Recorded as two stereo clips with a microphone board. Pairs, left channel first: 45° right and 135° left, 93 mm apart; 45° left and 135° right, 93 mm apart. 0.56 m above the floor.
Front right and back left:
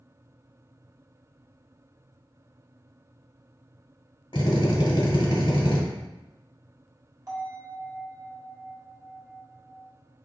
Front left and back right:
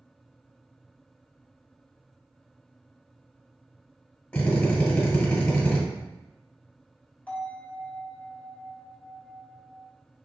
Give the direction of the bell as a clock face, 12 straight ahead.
8 o'clock.